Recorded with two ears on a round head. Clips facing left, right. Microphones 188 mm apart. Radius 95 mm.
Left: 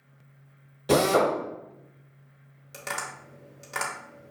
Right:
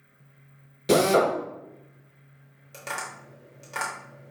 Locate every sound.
0.9 s a drill: 25° right (ahead or behind), 0.8 m
2.7 s tapping: 5° left (ahead or behind), 1.1 m